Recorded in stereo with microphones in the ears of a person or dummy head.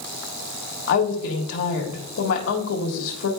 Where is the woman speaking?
65° left (ahead or behind), 1.6 m.